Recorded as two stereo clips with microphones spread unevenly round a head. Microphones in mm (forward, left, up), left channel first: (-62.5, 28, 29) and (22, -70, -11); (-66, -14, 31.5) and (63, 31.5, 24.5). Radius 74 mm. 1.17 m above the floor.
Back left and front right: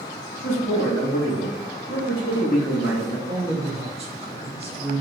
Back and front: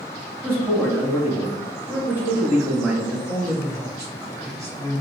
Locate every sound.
0.4 s a man speaking: 95° left, 1.1 m
3.3 s a man speaking: 40° right, 1.0 m